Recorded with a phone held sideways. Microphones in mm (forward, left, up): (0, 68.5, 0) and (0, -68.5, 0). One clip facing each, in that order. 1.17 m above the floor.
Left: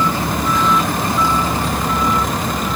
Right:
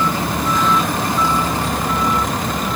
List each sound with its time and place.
Only background noise.